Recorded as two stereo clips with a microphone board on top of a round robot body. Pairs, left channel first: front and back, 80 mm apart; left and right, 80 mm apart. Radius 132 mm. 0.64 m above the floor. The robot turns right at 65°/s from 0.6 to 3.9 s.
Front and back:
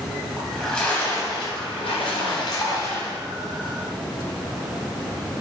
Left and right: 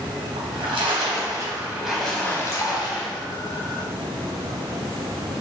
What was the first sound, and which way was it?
A splash, 90° right.